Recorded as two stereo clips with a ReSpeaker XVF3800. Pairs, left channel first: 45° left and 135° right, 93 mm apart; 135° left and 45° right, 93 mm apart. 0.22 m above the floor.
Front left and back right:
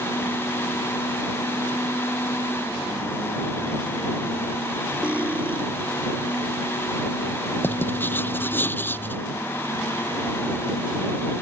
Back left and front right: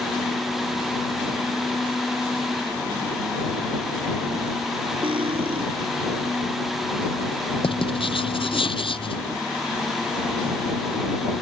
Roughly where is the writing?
Behind left.